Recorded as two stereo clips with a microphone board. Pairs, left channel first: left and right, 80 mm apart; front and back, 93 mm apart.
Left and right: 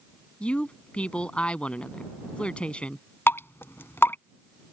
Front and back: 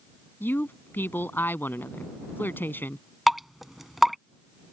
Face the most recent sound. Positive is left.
turn(degrees=95)